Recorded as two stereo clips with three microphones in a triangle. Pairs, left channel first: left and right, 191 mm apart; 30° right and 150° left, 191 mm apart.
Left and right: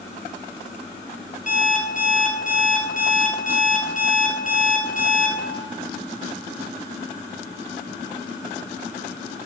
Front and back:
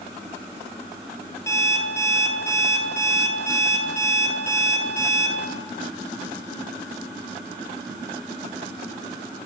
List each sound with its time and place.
1.5 s an alarm clock: 45° left, 1.7 m